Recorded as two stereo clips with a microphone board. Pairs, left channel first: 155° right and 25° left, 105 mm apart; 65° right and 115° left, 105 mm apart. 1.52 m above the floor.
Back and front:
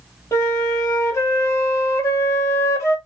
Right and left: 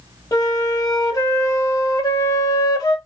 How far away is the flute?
About 1.3 m.